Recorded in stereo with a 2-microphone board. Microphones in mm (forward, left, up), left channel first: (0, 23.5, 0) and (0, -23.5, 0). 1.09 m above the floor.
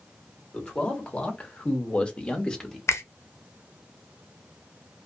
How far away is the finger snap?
About 0.5 m.